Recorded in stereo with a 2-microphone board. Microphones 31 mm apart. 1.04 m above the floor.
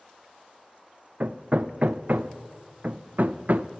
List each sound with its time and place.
1.2 s hammering: 60° right (ahead or behind), 0.5 m